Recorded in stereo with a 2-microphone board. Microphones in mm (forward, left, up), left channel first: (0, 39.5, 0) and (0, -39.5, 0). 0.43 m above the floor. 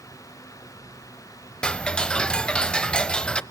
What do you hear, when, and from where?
1.6 s ticking: 10° left (ahead or behind), 0.5 m